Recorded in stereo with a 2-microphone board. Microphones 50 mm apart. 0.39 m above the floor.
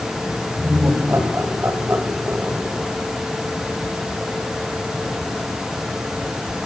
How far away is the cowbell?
No cowbell in this recording.